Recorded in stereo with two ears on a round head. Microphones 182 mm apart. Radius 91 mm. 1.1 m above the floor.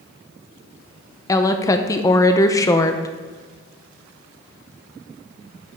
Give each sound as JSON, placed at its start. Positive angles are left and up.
{"t": 1.3, "sound": "a woman speaking", "side_deg": 15, "distance_m": 0.6}